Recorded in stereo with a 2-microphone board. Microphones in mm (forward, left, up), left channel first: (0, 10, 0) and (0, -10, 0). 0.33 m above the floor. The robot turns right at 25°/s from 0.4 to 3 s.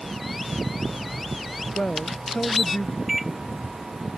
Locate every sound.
1.8 s a man speaking: 85° left; by 3.0 s 115° left
3.1 s a microwave: 10° right (ahead or behind)